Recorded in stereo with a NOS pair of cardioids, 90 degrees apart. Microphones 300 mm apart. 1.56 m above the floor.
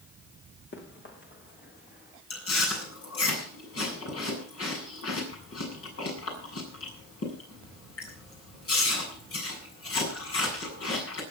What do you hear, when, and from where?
0.7 s running footsteps: 40° left, 5.5 m; by 2.2 s 30° left, 5 m
2.3 s chewing: 50° left, 7.5 m